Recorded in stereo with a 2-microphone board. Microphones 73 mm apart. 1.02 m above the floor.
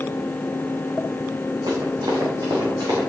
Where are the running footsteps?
65° right (ahead or behind), 3.5 m; by 3.0 s 70° right (ahead or behind), 4.5 m.